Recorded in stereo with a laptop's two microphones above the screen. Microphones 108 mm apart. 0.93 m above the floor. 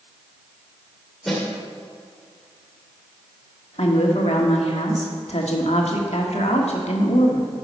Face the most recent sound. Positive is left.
turn(degrees=80)